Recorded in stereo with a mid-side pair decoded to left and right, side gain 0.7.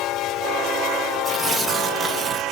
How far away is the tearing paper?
About 0.7 m.